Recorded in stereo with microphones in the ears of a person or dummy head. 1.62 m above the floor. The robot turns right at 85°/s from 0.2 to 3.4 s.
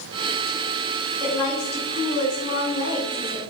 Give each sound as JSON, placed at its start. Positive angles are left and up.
{"t": 1.2, "sound": "a woman speaking", "azimuth_deg": 5, "distance_m": 2.5}